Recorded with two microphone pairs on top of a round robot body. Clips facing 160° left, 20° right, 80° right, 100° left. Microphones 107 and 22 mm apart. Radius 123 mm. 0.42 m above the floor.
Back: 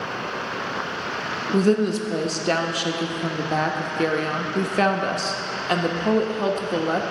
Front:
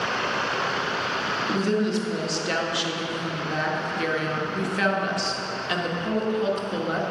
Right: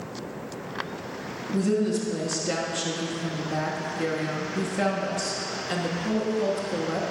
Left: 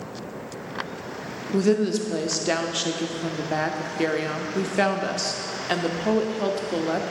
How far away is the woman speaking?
About 1.0 m.